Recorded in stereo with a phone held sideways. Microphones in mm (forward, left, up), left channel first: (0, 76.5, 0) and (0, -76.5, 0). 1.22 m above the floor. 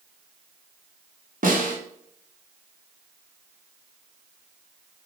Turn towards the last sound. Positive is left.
turn(degrees=-60)  # may be behind; listen again after turning